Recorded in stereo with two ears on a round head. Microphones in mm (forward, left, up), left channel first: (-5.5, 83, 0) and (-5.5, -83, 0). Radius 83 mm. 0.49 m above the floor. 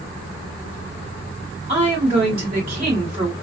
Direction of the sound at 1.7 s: 25° right (ahead or behind).